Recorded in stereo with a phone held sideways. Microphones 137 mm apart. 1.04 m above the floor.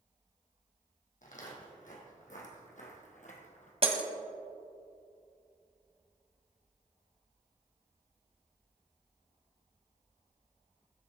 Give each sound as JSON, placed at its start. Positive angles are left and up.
{"t": 1.2, "sound": "footsteps", "side_deg": 65, "distance_m": 3.0}
{"t": 3.8, "sound": "breaking glass", "side_deg": -45, "distance_m": 1.4}